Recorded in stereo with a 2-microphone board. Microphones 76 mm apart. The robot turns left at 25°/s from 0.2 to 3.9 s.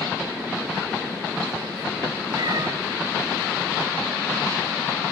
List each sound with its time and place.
2.3 s a cat meowing: 60° right (ahead or behind), 2 m; by 2.7 s 55° right (ahead or behind), 2 m